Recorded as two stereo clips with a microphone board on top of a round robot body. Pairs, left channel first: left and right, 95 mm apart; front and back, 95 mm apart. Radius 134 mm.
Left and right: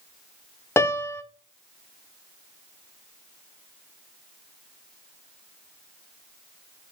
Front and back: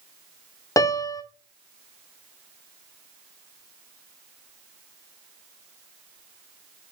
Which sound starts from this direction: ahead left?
A piano, at 0.8 s.